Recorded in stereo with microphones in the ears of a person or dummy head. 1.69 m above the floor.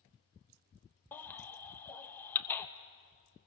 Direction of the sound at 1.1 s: 10° left (ahead or behind).